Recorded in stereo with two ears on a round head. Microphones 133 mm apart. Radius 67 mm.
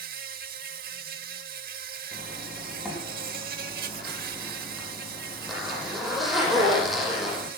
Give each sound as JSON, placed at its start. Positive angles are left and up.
{"t": 0.0, "sound": "an insect", "side_deg": -65, "distance_m": 1.2}
{"t": 2.1, "sound": "a zipper", "side_deg": 0, "distance_m": 9.0}